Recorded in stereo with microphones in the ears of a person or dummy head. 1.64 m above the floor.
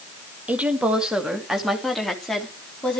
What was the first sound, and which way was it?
A woman speaking, 10° right (ahead or behind).